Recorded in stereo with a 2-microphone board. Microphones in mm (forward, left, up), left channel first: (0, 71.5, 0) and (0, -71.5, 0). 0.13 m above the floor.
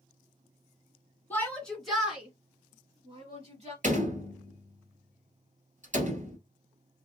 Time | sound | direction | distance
1.3 | a shout | 15° left (ahead or behind) | 1.7 m
3.8 | a door slam | 60° right (ahead or behind) | 1.6 m